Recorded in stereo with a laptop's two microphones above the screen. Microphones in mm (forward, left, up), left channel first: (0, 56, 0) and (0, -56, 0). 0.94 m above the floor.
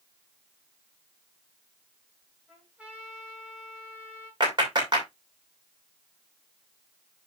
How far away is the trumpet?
About 2.5 m.